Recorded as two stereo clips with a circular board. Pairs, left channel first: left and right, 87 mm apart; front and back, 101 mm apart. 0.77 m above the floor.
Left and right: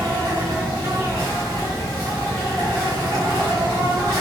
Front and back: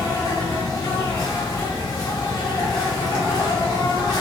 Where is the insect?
45° right, 1.6 m.